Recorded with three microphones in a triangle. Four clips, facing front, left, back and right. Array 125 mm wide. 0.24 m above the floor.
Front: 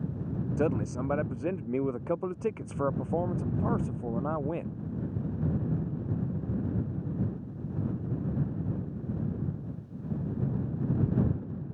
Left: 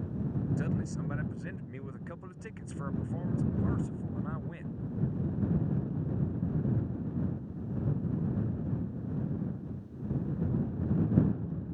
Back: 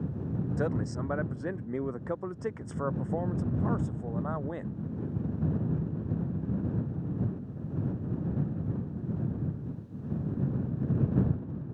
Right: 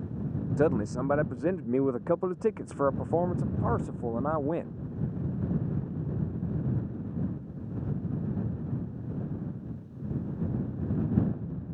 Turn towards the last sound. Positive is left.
turn(degrees=-75)